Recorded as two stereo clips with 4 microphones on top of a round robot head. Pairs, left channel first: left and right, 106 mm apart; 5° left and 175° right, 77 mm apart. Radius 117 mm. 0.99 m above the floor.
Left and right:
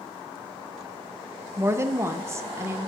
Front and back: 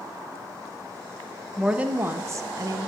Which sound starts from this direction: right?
A woman speaking, at 1.6 s.